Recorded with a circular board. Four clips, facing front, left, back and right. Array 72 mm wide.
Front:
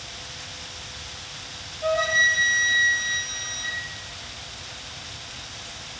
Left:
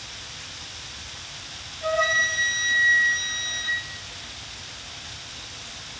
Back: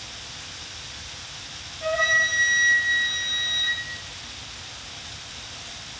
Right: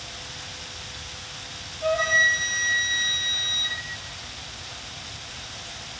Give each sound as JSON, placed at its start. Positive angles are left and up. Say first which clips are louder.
{"t": 1.8, "sound": "a flute", "louder": "right 2 dB, front 1 dB", "azimuth_deg": 175, "distance_m": 1.5}